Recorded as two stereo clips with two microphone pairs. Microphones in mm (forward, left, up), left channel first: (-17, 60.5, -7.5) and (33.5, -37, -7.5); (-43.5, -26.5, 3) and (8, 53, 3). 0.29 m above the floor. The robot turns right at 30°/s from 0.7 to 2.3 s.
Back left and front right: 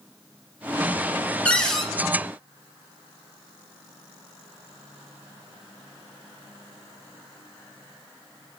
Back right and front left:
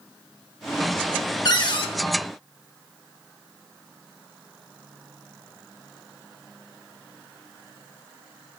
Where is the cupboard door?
165° right, 0.5 m; by 1.9 s 150° right, 0.5 m.